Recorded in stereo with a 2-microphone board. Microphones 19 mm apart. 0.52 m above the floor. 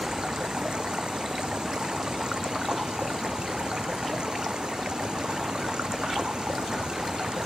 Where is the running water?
65° right (ahead or behind).